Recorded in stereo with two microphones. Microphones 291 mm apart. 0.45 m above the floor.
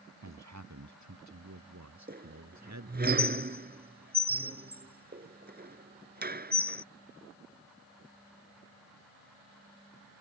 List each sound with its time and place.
0.2 s a man speaking: 70° right (ahead or behind); by 3.1 s 65° right (ahead or behind)
2.1 s a squeak: 35° right (ahead or behind)